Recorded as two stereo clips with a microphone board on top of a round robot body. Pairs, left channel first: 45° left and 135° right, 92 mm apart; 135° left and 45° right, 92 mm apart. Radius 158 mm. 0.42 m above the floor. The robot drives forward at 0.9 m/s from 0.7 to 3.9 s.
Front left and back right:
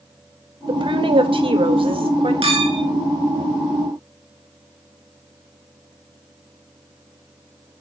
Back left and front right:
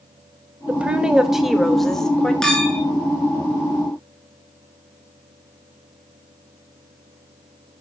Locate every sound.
0.7 s a woman speaking: 115° right, 2.5 m; by 2.3 s 145° right, 3 m
2.4 s a clink: 140° right, 5 m; by 2.8 s 145° right, 5.5 m